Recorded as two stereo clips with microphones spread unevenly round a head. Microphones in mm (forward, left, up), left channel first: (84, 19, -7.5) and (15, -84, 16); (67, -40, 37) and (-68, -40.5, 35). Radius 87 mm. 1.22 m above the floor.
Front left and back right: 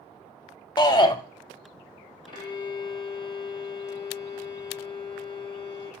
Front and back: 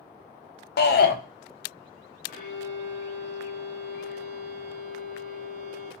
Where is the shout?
5° right, 0.5 m.